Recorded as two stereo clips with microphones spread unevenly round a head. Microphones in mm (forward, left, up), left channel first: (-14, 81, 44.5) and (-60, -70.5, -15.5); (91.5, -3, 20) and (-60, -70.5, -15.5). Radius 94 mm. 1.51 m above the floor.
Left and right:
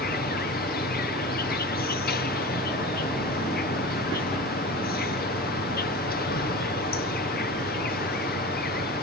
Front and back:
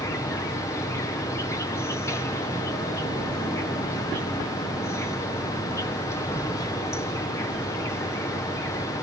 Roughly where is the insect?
Left.